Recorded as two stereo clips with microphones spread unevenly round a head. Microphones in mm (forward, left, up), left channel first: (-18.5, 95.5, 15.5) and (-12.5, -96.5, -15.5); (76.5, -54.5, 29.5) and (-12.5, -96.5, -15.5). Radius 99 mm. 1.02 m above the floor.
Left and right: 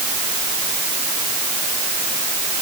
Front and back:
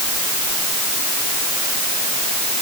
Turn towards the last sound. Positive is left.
No sound to turn to.